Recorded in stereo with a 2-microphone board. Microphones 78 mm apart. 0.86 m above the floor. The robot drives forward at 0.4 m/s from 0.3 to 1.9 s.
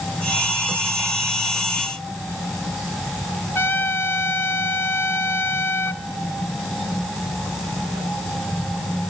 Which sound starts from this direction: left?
A trumpet, at 3.5 s.